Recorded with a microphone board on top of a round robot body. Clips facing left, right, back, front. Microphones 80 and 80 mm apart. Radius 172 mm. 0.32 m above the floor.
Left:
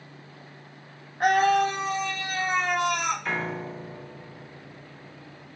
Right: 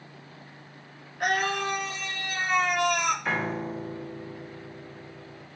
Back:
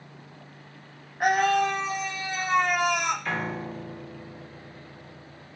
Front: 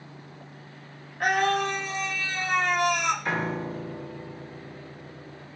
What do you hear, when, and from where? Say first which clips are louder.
1.2 s a scream: left 7 dB, back 2 dB; 115° left, 1.7 m
3.2 s a piano: right 1 dB, front 2 dB; 25° right, 1.3 m